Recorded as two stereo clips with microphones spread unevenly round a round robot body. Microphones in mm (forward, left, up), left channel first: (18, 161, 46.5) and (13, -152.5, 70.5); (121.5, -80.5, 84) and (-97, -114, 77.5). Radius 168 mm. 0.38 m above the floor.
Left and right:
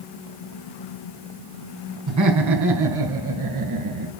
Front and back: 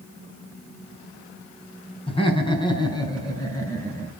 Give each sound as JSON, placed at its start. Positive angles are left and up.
{"t": 2.1, "sound": "laughter", "azimuth_deg": -55, "distance_m": 6.0}